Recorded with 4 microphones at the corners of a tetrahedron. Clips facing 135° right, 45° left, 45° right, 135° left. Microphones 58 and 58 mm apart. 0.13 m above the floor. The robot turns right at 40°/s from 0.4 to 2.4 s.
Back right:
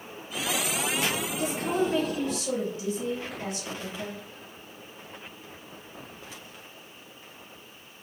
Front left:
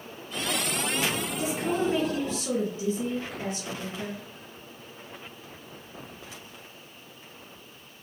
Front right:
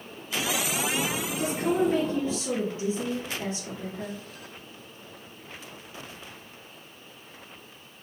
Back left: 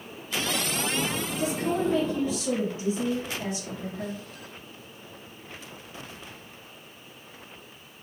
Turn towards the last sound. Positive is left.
turn(degrees=0)